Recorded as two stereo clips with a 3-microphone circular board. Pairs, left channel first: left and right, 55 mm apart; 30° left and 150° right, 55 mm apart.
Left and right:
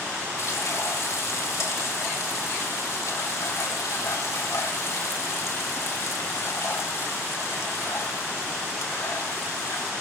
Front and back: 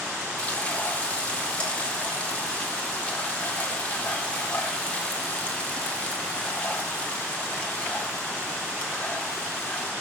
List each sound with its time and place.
0.4 s frying: 95° left, 2 m